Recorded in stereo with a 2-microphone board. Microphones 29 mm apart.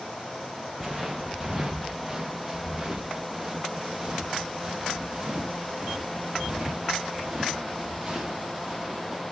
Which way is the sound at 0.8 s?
Centre (ahead or behind).